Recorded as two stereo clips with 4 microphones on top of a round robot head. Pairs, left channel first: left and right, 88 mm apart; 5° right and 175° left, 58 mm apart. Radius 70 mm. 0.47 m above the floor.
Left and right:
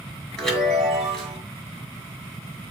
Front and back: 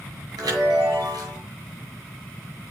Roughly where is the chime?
Behind.